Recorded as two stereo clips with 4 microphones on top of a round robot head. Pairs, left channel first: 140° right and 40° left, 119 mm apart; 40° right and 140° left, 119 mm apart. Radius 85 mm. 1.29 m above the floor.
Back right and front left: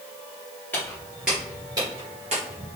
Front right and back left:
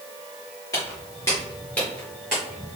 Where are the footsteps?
80° right, 1.3 m; by 2.7 s 45° left, 1.6 m.